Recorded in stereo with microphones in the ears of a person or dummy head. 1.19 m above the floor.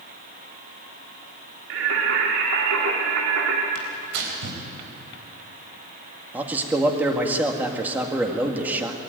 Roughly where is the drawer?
I don't hear a drawer.